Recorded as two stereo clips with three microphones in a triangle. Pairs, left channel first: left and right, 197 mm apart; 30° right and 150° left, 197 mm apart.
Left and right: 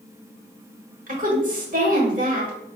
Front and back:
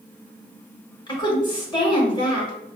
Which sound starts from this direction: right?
A woman speaking, at 1.1 s.